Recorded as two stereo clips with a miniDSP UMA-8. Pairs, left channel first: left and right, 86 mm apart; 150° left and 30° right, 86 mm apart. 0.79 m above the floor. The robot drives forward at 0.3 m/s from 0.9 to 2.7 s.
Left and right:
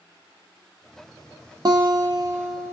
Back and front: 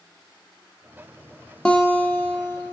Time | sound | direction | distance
1.6 | a guitar | 130° right | 0.5 m